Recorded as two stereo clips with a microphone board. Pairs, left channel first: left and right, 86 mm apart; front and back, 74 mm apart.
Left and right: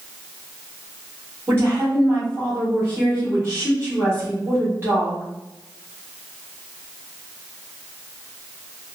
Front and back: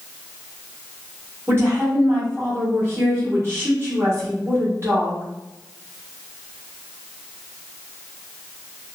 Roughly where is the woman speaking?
Behind right.